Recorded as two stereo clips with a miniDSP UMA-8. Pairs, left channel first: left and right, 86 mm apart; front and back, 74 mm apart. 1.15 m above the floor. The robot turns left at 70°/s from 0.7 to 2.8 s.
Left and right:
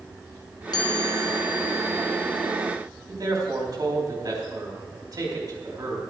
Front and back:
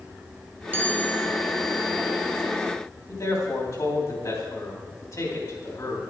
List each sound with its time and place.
0.7 s a chime: 120° left, 1.5 m; by 2.5 s 5° right, 1.5 m
3.1 s a man speaking: 45° right, 3 m